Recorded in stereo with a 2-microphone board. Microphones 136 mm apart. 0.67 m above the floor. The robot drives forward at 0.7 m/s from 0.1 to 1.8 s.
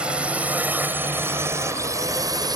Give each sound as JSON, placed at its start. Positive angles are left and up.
{"t": 0.0, "sound": "a drone", "side_deg": -10}